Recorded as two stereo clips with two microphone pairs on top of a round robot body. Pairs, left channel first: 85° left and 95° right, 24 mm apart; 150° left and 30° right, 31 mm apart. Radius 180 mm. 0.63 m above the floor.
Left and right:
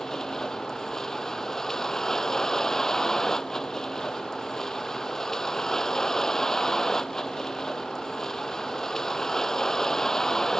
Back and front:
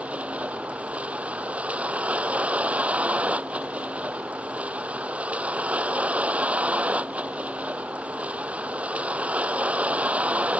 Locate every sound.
0.0 s a vehicle: 15° left